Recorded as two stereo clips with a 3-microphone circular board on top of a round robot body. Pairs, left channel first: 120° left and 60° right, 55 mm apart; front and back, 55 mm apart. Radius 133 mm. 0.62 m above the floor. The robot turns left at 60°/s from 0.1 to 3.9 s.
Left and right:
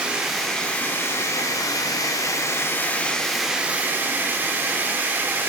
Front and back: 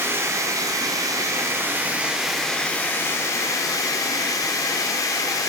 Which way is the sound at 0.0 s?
135° right.